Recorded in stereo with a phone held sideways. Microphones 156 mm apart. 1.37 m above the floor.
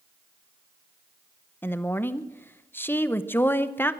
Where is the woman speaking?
15° left (ahead or behind), 0.8 m.